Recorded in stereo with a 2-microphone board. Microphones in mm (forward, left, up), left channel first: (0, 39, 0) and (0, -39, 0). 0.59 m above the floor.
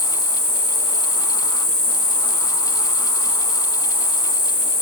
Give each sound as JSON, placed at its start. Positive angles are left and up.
{"t": 0.0, "sound": "an insect", "side_deg": -35, "distance_m": 1.9}